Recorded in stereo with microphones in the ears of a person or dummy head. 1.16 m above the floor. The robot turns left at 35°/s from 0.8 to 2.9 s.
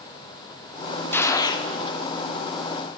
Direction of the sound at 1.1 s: 10° left (ahead or behind).